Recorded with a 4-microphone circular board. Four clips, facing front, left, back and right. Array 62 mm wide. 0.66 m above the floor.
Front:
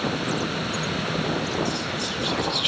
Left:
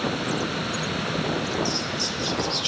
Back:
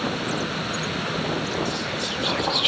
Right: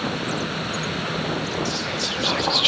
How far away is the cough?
I don't hear a cough.